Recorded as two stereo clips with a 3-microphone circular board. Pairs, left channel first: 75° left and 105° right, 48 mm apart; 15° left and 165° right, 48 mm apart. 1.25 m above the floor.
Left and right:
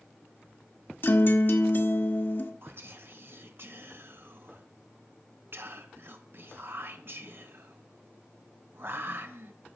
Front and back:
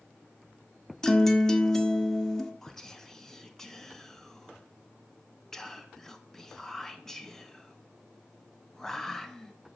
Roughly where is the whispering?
Right.